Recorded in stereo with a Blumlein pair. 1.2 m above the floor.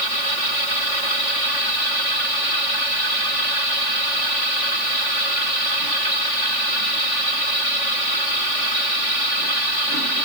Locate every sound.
Only background noise.